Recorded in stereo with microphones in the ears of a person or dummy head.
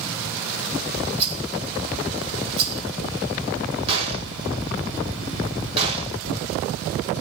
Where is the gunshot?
30° right (ahead or behind), 5.5 m.